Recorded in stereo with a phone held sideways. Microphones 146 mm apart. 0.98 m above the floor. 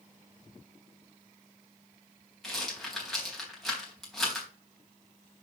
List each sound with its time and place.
2.4 s a rattle: centre (ahead or behind), 3.5 m